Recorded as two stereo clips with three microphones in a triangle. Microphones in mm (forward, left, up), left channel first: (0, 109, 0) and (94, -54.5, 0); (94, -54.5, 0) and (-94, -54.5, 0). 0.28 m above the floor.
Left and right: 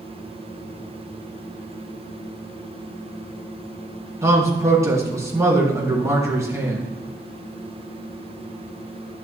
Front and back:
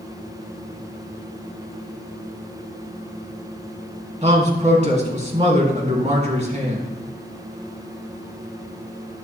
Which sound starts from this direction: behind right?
A man speaking, at 4.2 s.